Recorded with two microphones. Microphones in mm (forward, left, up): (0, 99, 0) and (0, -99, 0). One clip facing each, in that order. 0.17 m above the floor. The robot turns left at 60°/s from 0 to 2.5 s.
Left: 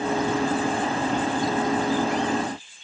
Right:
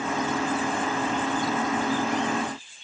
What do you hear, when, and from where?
Only background noise.